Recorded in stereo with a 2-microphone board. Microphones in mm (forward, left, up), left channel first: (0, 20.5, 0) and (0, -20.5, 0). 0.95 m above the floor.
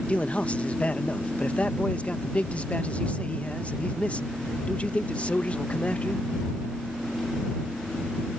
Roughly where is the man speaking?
Left.